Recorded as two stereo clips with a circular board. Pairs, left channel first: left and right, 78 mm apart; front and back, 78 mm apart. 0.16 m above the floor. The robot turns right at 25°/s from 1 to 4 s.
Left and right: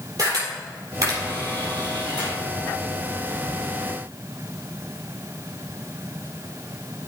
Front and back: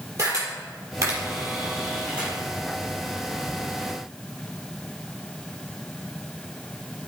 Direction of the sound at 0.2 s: 135° right.